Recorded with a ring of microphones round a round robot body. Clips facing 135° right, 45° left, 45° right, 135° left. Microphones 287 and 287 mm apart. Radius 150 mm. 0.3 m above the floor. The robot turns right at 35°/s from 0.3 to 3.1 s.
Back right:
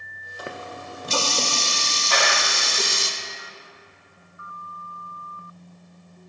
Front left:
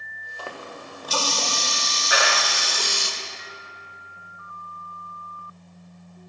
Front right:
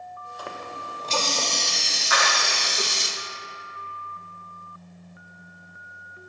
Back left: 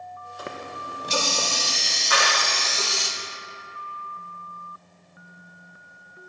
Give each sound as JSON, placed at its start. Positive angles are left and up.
{"t": 0.4, "sound": "a running tap", "azimuth_deg": 175, "distance_m": 0.6}
{"t": 2.1, "sound": "a clap", "azimuth_deg": 115, "distance_m": 0.8}